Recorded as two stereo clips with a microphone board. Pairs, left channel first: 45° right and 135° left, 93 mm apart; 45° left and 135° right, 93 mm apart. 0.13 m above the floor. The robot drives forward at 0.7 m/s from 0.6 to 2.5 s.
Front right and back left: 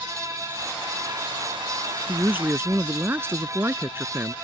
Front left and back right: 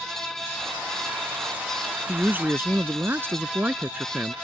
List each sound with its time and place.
2.1 s a man speaking: straight behind